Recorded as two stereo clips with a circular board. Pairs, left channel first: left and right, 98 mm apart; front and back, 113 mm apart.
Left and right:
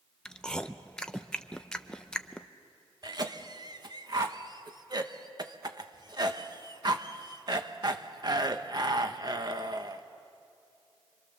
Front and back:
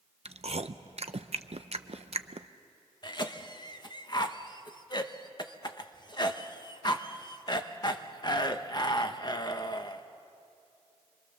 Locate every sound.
0.2 s chewing: 170° left, 0.6 m
3.0 s a cough: 50° right, 1.2 m